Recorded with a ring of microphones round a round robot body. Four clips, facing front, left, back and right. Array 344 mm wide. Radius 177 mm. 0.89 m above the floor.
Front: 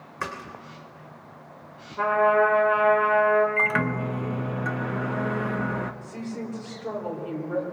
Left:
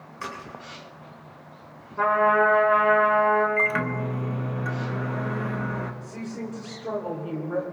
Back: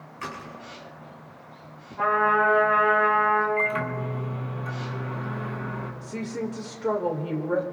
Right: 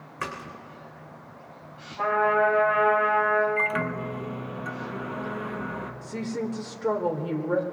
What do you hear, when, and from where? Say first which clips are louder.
0.2 s a splash: right 1 dB, front 3 dB; 30° right, 3.5 m
2.0 s a trumpet: left 2 dB, front 2 dB; 55° left, 4 m
3.6 s a microwave: left 2 dB, front 2 dB; 20° left, 0.9 m
6.0 s a woman speaking: right 4 dB, back 3 dB; 130° right, 2 m